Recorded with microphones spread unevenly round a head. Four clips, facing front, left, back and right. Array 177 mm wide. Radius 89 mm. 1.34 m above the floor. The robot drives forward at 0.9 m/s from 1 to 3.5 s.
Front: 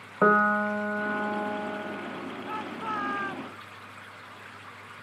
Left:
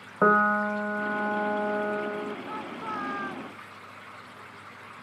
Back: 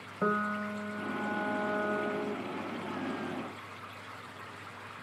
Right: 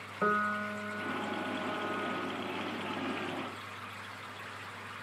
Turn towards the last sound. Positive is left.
turn(degrees=25)